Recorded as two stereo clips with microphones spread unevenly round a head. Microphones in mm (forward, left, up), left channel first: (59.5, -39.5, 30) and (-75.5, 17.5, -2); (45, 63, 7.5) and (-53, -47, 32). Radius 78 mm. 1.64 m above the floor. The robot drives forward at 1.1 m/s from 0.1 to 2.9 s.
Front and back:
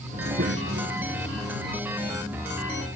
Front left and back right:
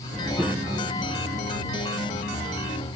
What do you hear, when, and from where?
0.1 s a child speaking: 130° left; by 3.0 s 175° left